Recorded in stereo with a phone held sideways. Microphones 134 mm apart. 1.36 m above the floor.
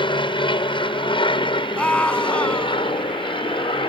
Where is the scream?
10° left (ahead or behind).